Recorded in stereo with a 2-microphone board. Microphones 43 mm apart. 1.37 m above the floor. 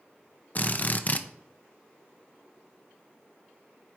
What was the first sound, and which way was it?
A drill, 35° left (ahead or behind).